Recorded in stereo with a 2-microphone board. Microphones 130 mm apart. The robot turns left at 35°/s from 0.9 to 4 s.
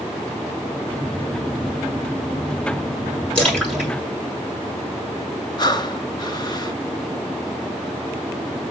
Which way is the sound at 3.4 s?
10° left (ahead or behind).